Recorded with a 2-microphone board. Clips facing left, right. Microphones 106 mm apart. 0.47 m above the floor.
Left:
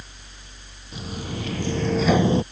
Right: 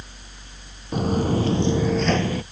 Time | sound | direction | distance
0.9 | footsteps | 55° right (ahead or behind) | ?